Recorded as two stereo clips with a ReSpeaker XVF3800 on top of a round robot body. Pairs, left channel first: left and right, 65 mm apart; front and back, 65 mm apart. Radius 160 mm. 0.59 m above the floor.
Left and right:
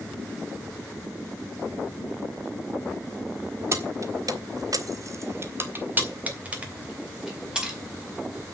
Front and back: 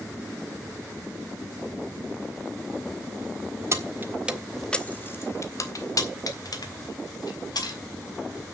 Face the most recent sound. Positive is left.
turn(degrees=-15)